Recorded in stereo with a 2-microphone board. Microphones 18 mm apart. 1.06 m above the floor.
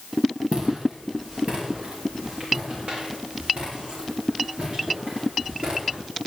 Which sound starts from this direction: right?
Footsteps, at 0.5 s.